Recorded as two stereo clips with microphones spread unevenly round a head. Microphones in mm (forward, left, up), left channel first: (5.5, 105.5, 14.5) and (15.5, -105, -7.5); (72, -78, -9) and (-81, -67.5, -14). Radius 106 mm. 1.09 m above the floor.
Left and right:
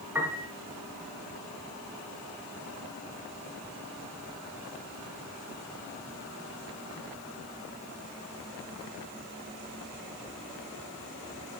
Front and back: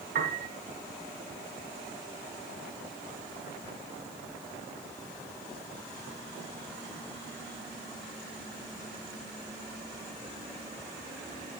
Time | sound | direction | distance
0.1 | a piano | 165° right | 4.5 m